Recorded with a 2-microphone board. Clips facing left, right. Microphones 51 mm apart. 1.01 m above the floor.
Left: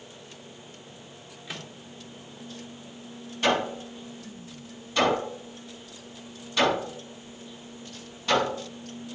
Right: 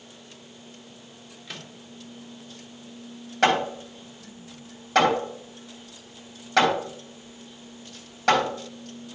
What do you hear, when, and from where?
1.5 s a microwave: 10° left (ahead or behind), 1.1 m
3.4 s hammering: 90° right, 4 m